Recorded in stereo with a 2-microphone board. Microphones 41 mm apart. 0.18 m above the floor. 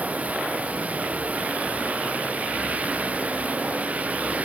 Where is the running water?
35° right (ahead or behind).